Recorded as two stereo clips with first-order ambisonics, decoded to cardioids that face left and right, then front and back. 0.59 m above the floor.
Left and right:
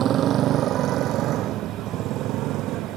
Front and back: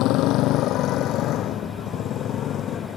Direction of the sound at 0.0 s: 35° right.